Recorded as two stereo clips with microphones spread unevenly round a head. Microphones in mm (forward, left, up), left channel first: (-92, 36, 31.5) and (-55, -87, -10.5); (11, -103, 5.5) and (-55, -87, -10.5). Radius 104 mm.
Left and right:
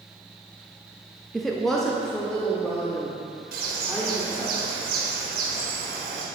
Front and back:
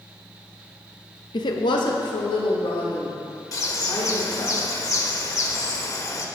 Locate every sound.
1.3 s a woman speaking: 5° left, 0.9 m; by 4.5 s 20° left, 3.5 m
3.5 s a bird: 45° right, 1.8 m